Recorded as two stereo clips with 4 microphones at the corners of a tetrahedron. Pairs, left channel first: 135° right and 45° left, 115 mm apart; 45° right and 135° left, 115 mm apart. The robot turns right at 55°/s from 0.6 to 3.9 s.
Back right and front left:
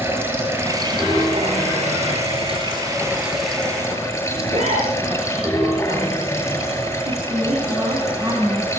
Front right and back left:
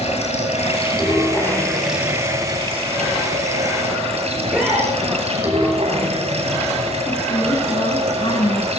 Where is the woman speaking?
10° right, 5.5 m.